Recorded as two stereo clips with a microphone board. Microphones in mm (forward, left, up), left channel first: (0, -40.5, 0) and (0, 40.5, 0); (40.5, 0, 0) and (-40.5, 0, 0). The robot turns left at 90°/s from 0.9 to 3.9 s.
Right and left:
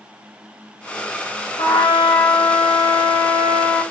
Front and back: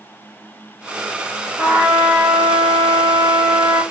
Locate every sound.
1.6 s a trumpet: 90° right, 2 m; by 3.8 s 70° left, 2 m